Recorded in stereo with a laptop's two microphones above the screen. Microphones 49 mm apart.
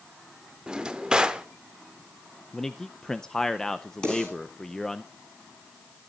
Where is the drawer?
15° right (ahead or behind), 0.7 m.